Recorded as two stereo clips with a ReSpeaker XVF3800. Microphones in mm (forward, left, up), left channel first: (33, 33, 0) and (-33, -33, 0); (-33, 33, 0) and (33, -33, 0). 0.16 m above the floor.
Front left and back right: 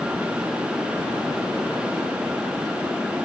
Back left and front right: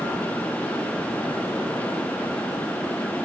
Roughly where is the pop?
I don't hear a pop.